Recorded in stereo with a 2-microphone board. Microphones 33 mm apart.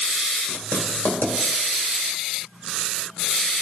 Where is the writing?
70° left (ahead or behind), 2.0 m.